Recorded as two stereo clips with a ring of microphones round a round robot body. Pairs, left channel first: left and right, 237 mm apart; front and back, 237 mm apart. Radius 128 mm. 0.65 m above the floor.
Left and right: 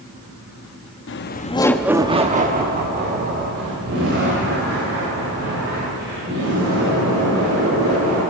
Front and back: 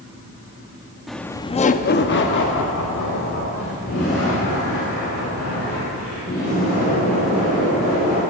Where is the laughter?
90° left, 0.9 m; by 8.2 s 55° right, 7 m.